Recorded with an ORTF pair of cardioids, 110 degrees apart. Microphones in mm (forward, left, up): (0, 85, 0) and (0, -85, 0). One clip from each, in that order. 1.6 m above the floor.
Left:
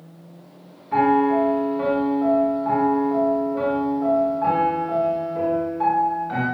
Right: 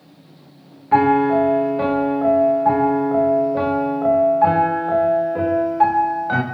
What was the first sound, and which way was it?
A piano, 50° right.